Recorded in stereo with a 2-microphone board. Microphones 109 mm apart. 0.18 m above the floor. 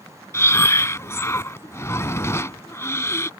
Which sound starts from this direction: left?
Breathing, at 0.3 s.